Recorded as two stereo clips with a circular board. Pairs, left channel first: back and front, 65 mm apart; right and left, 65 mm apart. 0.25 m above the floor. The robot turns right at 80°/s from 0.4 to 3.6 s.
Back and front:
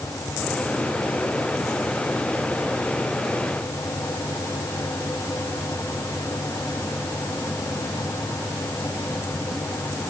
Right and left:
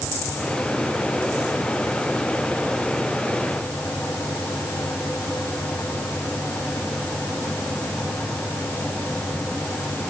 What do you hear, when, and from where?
Only background noise.